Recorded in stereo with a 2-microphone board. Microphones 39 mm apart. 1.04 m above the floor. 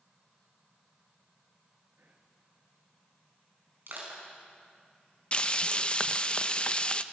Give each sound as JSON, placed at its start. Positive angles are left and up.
{"t": 2.0, "sound": "whispering", "side_deg": -75, "distance_m": 1.7}
{"t": 3.9, "sound": "crushing", "side_deg": -60, "distance_m": 5.5}
{"t": 5.3, "sound": "frying", "side_deg": 30, "distance_m": 0.7}